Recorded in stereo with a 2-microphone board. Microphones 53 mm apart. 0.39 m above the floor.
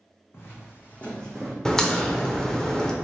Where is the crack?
10° left (ahead or behind), 0.6 m.